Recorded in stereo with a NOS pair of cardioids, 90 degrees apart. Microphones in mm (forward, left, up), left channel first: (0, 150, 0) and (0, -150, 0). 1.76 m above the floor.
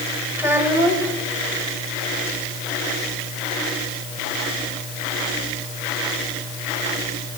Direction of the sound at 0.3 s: 5° right.